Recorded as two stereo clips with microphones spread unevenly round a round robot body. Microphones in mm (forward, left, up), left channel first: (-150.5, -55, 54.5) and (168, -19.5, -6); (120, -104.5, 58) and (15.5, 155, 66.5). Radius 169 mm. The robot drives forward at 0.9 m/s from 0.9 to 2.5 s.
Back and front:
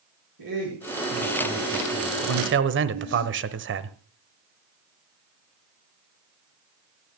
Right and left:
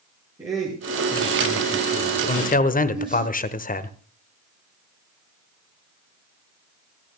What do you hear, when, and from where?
0.4 s a man speaking: 35° left, 8 m; by 3.2 s 40° left, 7 m
2.2 s a man speaking: 15° right, 1.3 m; by 4.0 s 20° right, 1.2 m